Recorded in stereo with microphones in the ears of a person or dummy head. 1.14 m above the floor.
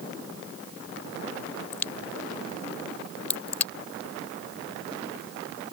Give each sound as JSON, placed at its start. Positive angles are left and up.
{"t": 1.7, "sound": "a crack", "side_deg": 10}